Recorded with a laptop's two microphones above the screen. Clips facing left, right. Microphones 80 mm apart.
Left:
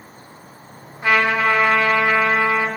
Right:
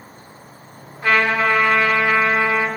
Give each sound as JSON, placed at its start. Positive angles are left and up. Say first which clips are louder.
{"t": 1.0, "sound": "a trumpet", "louder": "even", "side_deg": 15, "distance_m": 2.0}